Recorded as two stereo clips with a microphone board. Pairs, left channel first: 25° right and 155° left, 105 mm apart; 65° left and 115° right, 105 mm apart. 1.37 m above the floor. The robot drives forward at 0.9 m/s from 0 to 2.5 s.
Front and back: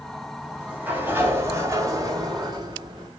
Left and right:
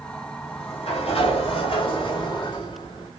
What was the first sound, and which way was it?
A sliding door, 75° left.